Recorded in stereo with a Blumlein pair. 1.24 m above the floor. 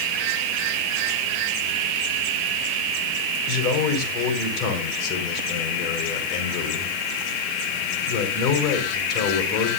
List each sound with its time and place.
3.5 s a man speaking: 40° left, 5 m